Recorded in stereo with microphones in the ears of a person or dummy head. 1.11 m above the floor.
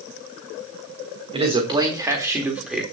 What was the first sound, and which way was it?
A man speaking, 25° right (ahead or behind).